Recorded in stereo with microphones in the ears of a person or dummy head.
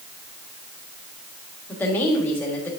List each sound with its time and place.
1.7 s a woman speaking: 10° left (ahead or behind), 1.4 m